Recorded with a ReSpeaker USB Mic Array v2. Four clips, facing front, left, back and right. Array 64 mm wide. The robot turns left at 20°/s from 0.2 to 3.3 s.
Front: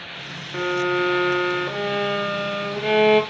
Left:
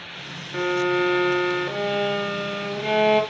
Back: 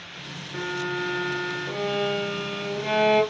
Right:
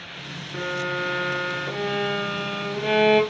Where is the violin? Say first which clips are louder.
Left 6 dB, front 7 dB; 30° left, 0.6 m; by 3.2 s 20° right, 0.6 m.